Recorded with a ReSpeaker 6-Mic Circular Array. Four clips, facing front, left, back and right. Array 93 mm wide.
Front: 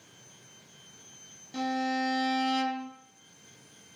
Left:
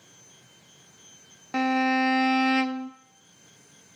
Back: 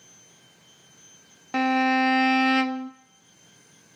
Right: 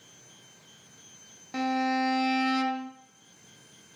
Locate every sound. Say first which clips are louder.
1.5 s a violin: left 4 dB, back 8 dB; 150° left, 0.6 m